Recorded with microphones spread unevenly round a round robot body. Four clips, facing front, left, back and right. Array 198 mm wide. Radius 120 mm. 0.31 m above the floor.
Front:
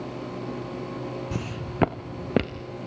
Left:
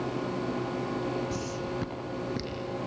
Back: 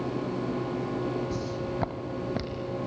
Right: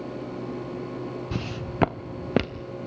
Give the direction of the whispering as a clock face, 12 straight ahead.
I don't hear whispering.